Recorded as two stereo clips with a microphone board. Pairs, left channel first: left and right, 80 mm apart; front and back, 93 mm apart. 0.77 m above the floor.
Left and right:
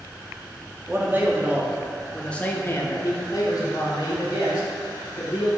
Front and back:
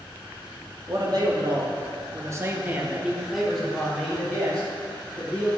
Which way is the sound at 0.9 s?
145° right.